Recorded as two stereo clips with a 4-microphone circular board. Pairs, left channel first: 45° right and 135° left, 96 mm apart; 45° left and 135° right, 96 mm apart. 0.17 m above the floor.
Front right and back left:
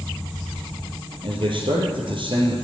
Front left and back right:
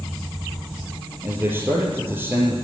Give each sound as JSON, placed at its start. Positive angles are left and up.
{"t": 1.2, "sound": "a man speaking", "azimuth_deg": 160, "distance_m": 3.0}